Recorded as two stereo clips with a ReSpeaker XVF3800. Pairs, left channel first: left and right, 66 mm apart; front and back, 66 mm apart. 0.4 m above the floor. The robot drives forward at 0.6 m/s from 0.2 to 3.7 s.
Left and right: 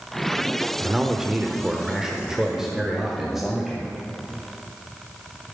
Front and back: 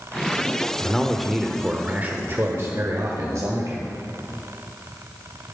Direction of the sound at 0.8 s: 35° right.